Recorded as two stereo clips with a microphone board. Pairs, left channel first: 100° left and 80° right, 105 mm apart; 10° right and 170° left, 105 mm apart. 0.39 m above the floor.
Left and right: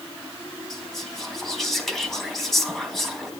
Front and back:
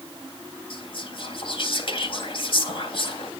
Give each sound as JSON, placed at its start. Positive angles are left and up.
{"t": 0.7, "sound": "whispering", "azimuth_deg": 10, "distance_m": 3.5}